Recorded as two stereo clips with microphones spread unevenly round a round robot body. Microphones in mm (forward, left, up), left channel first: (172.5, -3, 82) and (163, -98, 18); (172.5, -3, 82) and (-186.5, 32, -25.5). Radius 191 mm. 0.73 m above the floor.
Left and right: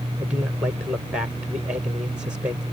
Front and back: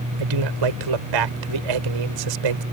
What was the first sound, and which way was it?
A man speaking, 170° right.